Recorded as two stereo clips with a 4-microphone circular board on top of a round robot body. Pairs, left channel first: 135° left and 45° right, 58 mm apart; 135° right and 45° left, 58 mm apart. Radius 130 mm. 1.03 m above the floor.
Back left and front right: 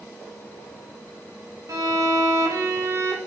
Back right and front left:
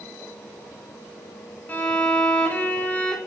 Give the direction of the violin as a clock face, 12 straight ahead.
2 o'clock.